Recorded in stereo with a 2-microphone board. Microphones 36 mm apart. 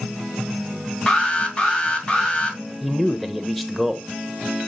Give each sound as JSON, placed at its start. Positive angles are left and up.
{"t": 1.1, "sound": "an alarm", "side_deg": 25, "distance_m": 1.6}
{"t": 2.8, "sound": "a man speaking", "side_deg": 0, "distance_m": 0.8}